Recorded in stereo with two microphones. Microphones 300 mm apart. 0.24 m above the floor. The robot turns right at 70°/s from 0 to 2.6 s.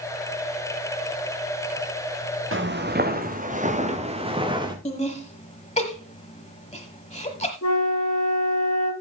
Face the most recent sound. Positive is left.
turn(degrees=60)  # may be behind; listen again after turning